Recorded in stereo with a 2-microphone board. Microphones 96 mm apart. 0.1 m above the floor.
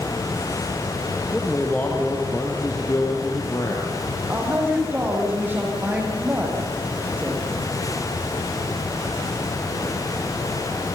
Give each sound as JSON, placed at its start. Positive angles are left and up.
{"t": 1.3, "sound": "a man speaking", "side_deg": 10, "distance_m": 3.0}
{"t": 4.3, "sound": "a woman speaking", "side_deg": -20, "distance_m": 6.5}